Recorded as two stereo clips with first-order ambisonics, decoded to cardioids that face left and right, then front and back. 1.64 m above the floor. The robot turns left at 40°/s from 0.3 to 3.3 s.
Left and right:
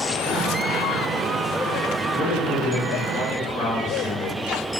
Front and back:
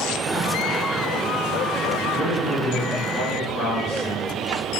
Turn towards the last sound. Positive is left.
turn(degrees=50)